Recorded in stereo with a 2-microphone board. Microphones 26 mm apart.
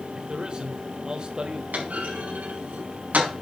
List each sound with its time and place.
0.1 s a man speaking: 35° right (ahead or behind), 1.8 m
1.7 s a clunk: 80° right, 5 m